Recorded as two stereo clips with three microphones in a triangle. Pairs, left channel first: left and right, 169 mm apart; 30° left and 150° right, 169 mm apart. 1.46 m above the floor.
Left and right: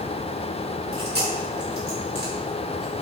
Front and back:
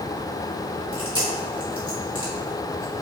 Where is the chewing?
90° right, 1.9 m.